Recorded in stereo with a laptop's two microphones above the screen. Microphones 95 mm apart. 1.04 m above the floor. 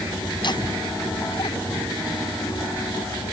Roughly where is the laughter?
Left.